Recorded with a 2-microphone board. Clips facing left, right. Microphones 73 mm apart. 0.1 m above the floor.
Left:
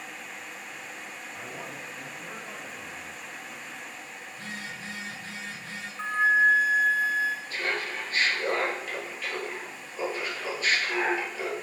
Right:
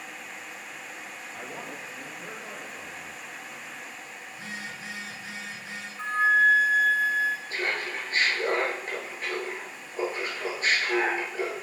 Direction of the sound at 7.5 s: 40° right (ahead or behind).